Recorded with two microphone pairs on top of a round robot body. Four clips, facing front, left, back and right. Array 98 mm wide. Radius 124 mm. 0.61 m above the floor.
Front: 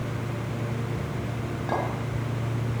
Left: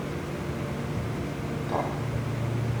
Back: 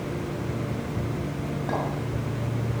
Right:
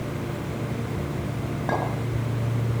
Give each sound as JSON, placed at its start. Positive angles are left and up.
{"t": 1.7, "sound": "a clink", "azimuth_deg": -100, "distance_m": 6.5}